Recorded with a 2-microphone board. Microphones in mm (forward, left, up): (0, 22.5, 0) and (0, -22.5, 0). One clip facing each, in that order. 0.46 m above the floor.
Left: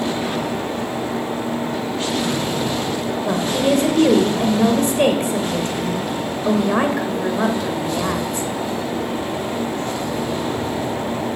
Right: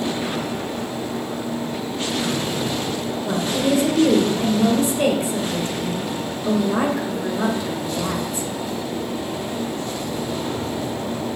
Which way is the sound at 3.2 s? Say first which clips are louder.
Left 2 dB; 55° left (ahead or behind).